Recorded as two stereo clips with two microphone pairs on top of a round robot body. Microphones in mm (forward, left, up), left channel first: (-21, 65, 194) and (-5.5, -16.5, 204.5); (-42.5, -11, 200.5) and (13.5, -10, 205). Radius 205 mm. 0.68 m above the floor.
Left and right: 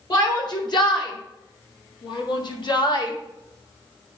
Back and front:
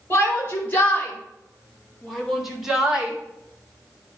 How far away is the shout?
About 3.5 m.